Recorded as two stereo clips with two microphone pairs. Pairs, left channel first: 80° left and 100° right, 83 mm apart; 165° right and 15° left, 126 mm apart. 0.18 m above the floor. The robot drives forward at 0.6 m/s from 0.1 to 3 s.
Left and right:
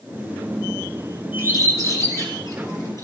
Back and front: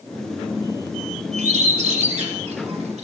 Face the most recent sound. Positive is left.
turn(degrees=40)